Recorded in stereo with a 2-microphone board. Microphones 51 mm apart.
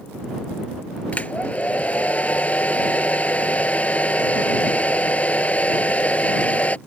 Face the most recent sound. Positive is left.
turn(degrees=30)  # may be behind; listen again after turning